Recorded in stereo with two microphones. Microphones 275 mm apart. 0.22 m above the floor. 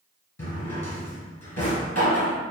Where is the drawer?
60° left (ahead or behind), 1.3 m.